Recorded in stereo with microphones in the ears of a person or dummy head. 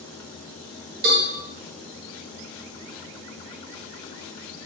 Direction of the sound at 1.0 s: 55° right (ahead or behind).